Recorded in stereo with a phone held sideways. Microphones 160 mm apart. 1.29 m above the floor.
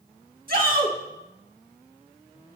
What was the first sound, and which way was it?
A shout, 65° right (ahead or behind).